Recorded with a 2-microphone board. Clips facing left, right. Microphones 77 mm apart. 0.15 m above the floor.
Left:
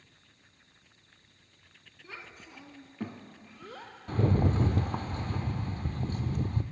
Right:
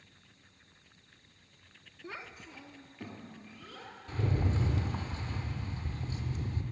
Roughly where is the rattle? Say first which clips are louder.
Left 6 dB; left.